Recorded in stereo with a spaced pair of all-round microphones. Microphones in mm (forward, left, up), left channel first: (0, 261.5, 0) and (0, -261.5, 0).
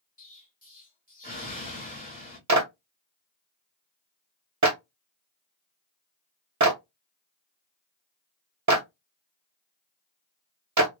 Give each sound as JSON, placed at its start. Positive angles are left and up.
{"t": 0.2, "sound": "an explosion", "side_deg": 15, "distance_m": 2.0}
{"t": 2.5, "sound": "a clap", "side_deg": -35, "distance_m": 0.9}